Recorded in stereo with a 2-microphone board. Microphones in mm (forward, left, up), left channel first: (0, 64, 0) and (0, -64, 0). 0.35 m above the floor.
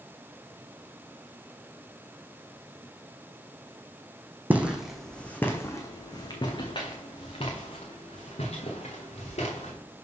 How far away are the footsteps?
About 0.9 m.